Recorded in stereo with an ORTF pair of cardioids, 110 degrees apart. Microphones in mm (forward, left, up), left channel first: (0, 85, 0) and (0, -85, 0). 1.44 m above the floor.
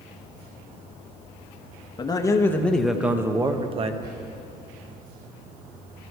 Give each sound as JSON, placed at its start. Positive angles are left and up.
{"t": 2.0, "sound": "a man speaking", "azimuth_deg": 25, "distance_m": 1.4}
{"t": 4.0, "sound": "whispering", "azimuth_deg": -65, "distance_m": 6.0}